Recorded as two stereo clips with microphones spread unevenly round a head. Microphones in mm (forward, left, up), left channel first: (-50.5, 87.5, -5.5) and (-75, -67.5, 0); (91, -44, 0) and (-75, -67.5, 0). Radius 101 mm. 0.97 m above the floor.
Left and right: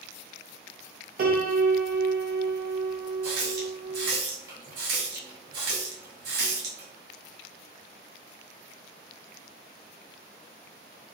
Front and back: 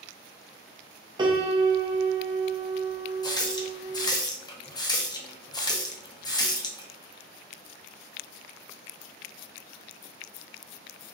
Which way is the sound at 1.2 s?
110° right.